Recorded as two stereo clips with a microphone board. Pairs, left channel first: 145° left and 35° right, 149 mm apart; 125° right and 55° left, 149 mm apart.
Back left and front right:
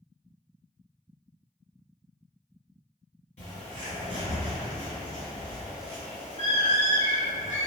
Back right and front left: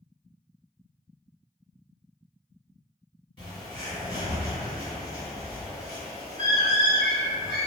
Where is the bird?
175° right, 1.9 m.